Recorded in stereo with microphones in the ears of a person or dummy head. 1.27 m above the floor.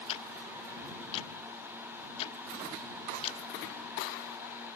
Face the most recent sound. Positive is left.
turn(degrees=35)  # may be behind; listen again after turning